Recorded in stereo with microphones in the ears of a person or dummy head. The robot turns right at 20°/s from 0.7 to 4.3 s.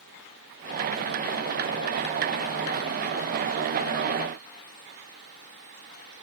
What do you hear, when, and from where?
Only background noise.